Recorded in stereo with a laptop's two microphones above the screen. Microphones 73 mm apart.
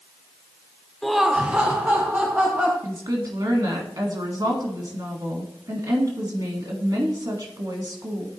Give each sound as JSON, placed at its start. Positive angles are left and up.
{"t": 1.0, "sound": "laughter", "side_deg": 5, "distance_m": 0.7}
{"t": 2.8, "sound": "a woman speaking", "side_deg": -70, "distance_m": 1.3}